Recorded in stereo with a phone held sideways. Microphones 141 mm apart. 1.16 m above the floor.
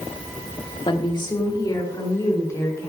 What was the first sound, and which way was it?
A woman speaking, 35° left (ahead or behind).